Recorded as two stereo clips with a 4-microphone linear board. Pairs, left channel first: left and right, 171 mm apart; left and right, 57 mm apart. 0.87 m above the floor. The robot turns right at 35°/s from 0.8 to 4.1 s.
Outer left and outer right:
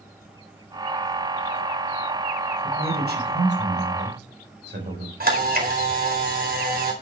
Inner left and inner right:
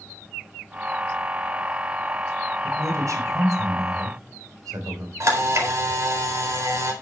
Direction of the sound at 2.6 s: 130° right.